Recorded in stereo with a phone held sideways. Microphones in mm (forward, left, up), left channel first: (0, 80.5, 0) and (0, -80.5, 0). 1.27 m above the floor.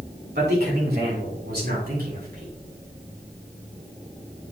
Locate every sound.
0.3 s a man speaking: 80° right, 2.5 m; by 2.5 s 65° right (ahead or behind), 3.5 m